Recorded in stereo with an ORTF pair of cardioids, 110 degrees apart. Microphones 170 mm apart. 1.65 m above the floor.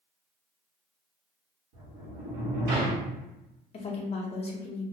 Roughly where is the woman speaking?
Ahead left.